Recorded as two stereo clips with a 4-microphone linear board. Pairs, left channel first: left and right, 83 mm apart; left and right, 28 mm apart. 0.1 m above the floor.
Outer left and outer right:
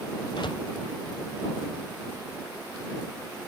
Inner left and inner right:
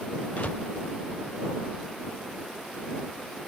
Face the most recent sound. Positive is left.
turn(degrees=65)  # may be behind; listen again after turning